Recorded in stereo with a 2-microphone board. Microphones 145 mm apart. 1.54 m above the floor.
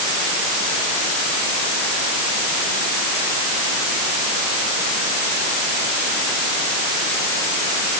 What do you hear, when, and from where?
Only background noise.